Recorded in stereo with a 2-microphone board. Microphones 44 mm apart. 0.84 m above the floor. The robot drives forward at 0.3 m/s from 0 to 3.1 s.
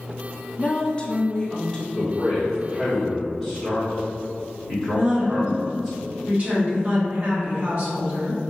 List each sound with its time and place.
0.6 s a woman speaking: 30° left (ahead or behind), 0.5 m; by 1.9 s 20° left (ahead or behind), 0.8 m
1.9 s a man speaking: 10° right (ahead or behind), 1.8 m
4.9 s a woman speaking: 40° right (ahead or behind), 1.5 m